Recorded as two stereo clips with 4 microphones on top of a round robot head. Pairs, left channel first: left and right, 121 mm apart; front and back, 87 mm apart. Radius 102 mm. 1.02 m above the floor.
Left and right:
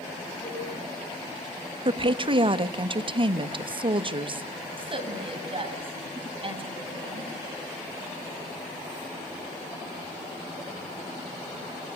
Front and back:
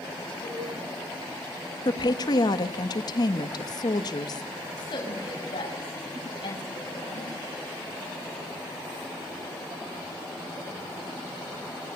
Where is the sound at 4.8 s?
45° right, 8 m.